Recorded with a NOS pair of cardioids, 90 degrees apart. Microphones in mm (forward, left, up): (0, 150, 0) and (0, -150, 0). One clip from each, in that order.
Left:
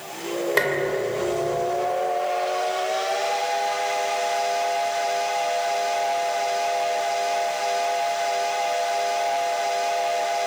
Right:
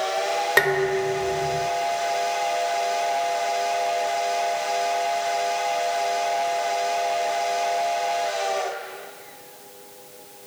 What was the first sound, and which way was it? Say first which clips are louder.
Dishes clattering: right 2 dB; 55° right.